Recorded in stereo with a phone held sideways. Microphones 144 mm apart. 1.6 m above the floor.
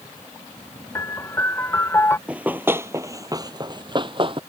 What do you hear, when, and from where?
0.9 s a piano: 15° left (ahead or behind)
2.3 s running footsteps: 10° right (ahead or behind); by 4.4 s 40° right (ahead or behind)